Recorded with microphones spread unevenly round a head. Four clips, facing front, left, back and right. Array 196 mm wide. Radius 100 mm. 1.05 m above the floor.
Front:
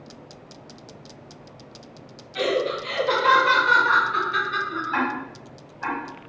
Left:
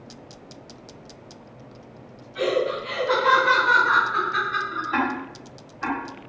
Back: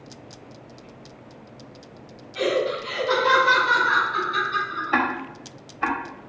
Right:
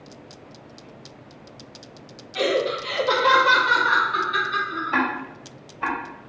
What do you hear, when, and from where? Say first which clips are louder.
2.4 s laughter: right 1 dB, back 1 dB; 70° right, 1.7 m; by 5.0 s 40° right, 3 m
4.9 s ticking: right 1 dB, back 4 dB; 160° right, 1.9 m